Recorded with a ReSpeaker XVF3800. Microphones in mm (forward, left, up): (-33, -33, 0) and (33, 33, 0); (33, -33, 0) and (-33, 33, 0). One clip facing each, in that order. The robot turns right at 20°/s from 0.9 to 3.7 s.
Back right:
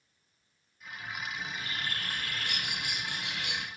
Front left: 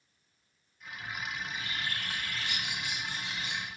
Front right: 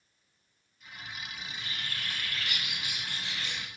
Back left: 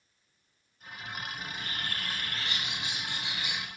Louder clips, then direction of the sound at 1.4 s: Even, back left 3 dB; 170° left.